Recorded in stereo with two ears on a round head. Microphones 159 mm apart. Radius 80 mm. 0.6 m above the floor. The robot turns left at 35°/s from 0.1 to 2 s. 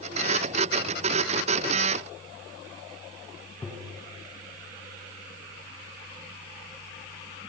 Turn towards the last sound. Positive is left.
turn(degrees=10)  # may be behind; listen again after turning